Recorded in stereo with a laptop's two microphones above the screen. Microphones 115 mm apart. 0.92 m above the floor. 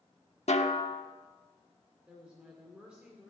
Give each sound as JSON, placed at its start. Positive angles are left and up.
{"t": 0.5, "sound": "a snare drum", "side_deg": 75, "distance_m": 1.1}
{"t": 2.1, "sound": "a woman speaking", "side_deg": -10, "distance_m": 2.5}